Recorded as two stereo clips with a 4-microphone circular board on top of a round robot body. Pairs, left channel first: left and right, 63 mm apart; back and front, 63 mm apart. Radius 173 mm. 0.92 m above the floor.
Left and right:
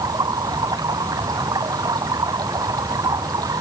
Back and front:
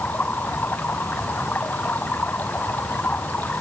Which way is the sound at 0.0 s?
115° right.